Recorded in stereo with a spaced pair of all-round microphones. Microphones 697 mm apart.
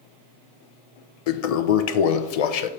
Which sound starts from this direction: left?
A toilet flushing, at 1.3 s.